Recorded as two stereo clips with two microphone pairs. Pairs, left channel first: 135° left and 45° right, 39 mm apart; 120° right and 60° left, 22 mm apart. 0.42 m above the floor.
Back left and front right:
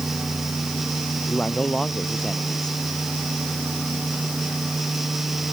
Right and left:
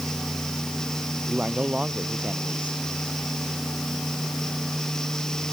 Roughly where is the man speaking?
Left.